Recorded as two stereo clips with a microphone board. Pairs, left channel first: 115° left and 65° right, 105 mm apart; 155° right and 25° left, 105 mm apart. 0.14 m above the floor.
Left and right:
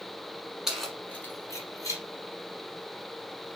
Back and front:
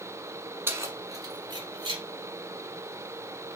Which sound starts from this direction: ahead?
Keys jangling, at 0.7 s.